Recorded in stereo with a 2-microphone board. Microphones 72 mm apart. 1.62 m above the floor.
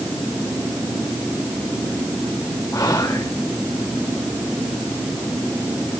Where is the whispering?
50° left (ahead or behind), 1.8 m.